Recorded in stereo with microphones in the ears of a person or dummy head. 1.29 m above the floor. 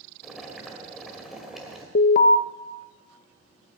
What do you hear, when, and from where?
0.2 s boiling: centre (ahead or behind), 2 m
1.9 s an alarm: 50° left (ahead or behind), 1.0 m